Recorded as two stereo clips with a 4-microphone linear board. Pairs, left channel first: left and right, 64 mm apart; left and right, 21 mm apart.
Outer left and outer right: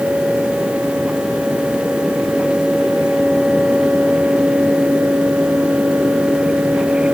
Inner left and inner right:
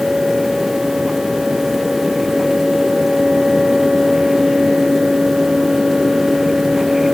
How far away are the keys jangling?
I don't hear keys jangling.